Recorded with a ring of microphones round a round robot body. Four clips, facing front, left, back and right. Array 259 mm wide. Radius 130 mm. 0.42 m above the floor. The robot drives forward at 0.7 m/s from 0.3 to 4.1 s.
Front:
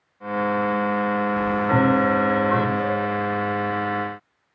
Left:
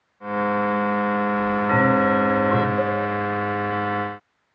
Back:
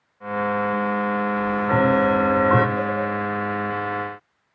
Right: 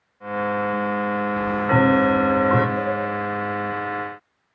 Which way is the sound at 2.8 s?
140° right.